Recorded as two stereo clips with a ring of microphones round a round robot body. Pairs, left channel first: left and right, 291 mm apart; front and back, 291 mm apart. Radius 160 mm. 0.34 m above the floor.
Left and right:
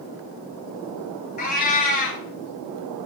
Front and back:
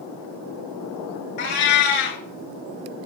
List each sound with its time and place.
1.4 s a cat meowing: 25° left, 0.8 m